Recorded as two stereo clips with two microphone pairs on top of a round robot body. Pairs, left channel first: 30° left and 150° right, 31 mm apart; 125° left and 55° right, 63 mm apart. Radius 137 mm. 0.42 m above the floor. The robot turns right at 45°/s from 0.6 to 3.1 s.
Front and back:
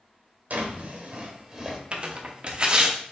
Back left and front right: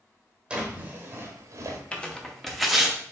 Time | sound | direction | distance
0.5 | a drawer | 120° right | 1.0 m
1.9 | tearing paper | 160° right | 1.0 m